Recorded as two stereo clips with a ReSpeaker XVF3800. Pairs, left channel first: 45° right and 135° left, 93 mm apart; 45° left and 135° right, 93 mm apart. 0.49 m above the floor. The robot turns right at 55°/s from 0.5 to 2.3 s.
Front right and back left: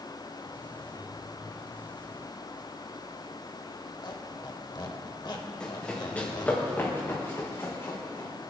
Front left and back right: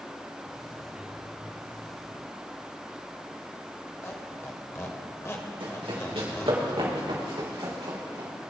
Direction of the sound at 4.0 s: 15° right.